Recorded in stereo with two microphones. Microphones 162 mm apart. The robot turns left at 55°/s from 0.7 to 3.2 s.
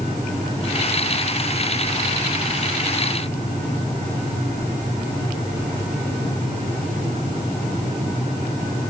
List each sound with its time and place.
Only background noise.